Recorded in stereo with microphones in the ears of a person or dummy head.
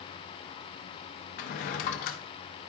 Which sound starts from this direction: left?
A drawer, at 1.4 s.